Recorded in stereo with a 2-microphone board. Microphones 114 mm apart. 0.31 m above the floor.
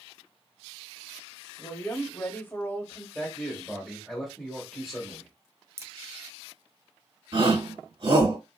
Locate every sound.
1.6 s a woman speaking: 15° left (ahead or behind), 1.1 m
3.1 s a man speaking: centre (ahead or behind), 1.2 m
5.8 s a crack: 25° right (ahead or behind), 0.6 m
7.3 s a shout: 50° right (ahead or behind), 2.5 m